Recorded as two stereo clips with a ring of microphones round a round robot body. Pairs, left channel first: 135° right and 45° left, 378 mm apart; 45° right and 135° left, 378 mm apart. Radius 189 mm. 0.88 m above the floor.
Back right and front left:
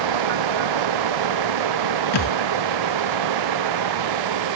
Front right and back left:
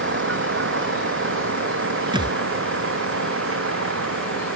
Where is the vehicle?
75° left; by 4.6 s 80° left.